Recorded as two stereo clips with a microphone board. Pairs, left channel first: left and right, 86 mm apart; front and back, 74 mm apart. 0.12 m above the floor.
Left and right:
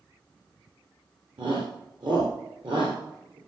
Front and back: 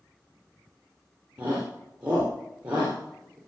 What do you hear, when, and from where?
1.4 s a shout: 110° right, 3.5 m